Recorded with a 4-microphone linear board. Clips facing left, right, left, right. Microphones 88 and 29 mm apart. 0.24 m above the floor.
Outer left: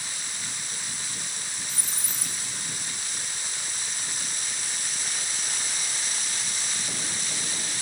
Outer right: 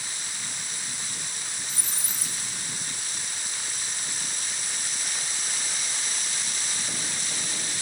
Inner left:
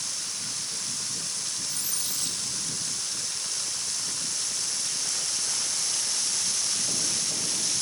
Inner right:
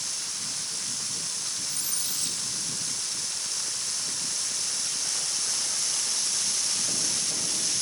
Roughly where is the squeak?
Centre.